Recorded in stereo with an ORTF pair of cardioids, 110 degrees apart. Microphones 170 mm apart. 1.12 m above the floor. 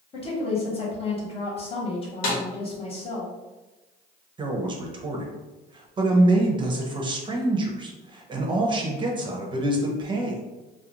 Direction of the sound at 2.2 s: 65° left.